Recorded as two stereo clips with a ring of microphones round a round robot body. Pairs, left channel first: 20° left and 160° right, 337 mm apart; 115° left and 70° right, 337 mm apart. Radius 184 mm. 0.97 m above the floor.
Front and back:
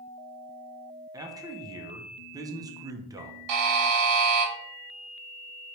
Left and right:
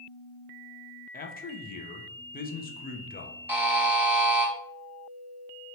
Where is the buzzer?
150° right, 0.8 m.